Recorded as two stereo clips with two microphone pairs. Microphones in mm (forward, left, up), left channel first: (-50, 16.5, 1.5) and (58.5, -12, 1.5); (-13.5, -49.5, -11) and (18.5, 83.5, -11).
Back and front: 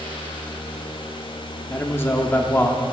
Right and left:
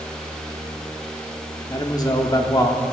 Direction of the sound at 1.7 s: 140° right.